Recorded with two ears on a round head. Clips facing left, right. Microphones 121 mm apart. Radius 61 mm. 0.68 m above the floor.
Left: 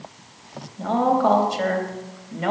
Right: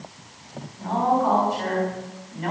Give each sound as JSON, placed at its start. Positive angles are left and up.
{"t": 0.8, "sound": "a woman speaking", "side_deg": 75, "distance_m": 3.5}